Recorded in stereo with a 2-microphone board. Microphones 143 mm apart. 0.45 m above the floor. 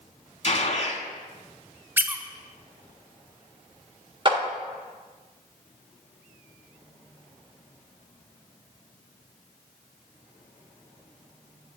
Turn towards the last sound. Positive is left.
turn(degrees=-35)  # may be behind; listen again after turning